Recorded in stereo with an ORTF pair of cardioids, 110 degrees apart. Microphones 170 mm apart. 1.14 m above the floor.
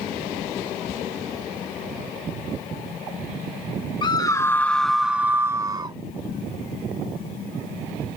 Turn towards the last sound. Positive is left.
turn(degrees=-25)